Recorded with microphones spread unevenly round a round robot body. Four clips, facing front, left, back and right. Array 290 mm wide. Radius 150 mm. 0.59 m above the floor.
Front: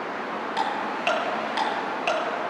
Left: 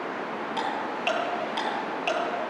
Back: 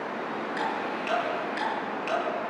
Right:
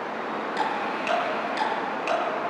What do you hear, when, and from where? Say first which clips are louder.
0.6 s ticking: right 3 dB, front 4 dB; 5° left, 8.5 m